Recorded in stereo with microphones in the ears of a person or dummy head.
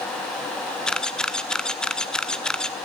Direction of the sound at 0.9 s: Centre (ahead or behind).